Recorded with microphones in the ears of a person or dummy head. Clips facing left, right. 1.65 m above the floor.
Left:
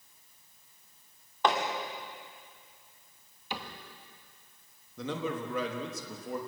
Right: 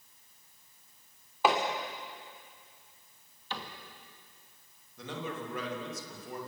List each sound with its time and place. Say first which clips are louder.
1.4 s hammering: right 1 dB; 5° right (ahead or behind), 2.5 m
3.5 s a cupboard door: left 2 dB; 15° left (ahead or behind), 2 m
5.0 s a man speaking: left 5 dB; 75° left (ahead or behind), 3.5 m